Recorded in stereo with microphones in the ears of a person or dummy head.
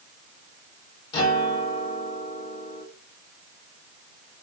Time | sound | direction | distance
1.1 | a guitar | 25° left (ahead or behind) | 2 m